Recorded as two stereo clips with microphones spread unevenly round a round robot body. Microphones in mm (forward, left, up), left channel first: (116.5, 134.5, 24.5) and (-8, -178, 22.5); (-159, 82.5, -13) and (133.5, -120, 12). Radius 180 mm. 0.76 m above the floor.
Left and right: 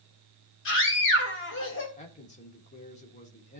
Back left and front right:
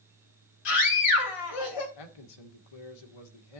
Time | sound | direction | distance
0.7 | a scream | 125° left | 3 m
2.0 | a man speaking | 140° left | 1.9 m